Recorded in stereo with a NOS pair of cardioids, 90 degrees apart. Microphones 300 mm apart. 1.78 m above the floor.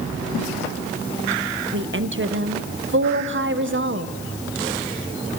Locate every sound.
1.7 s a woman speaking: 40° right, 1.4 m